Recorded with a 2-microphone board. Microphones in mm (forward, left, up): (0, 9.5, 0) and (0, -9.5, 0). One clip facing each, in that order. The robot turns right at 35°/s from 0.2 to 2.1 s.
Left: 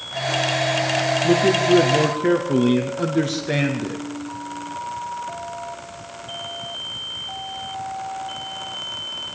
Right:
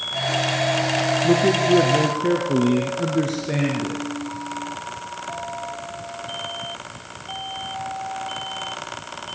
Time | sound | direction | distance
1.2 | a man speaking | 5° right | 3 m